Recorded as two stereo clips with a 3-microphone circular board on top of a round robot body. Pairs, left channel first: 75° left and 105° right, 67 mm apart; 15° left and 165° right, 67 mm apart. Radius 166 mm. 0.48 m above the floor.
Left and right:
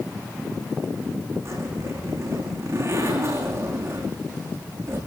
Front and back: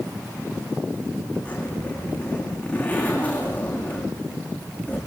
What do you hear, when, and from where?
1.4 s a zipper: 60° right, 9.5 m